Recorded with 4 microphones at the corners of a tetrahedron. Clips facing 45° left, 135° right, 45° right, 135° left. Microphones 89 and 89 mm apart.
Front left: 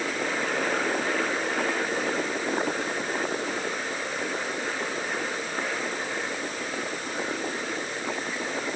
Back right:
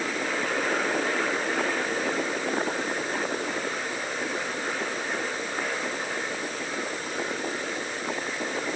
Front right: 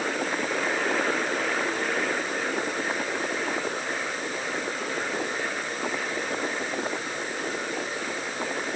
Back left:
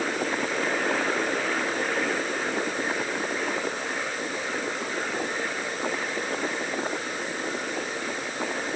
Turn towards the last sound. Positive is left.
No sound to turn to.